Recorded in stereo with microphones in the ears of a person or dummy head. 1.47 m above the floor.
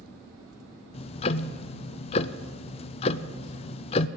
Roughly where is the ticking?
Left.